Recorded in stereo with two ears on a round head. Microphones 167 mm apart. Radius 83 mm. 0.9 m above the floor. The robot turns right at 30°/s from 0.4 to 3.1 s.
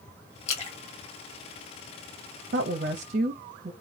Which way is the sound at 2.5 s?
50° right (ahead or behind).